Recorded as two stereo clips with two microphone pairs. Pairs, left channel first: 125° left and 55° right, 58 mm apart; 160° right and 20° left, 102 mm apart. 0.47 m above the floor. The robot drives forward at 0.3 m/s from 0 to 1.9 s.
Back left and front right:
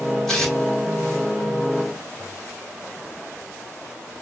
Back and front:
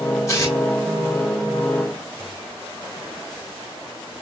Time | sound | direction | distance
0.3 | tearing paper | 165° right | 1.5 m